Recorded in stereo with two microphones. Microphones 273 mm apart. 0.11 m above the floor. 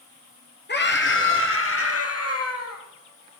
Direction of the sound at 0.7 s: 40° left (ahead or behind).